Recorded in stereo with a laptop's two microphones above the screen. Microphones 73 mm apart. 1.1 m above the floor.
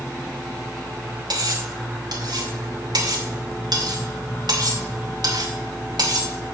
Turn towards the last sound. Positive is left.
turn(degrees=-75)  # may be behind; listen again after turning